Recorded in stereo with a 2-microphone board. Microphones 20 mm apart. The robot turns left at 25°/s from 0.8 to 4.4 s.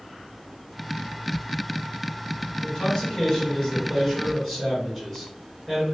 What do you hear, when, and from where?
2.6 s a man speaking: 50° left, 1.5 m; by 5.8 s 5° left, 1.5 m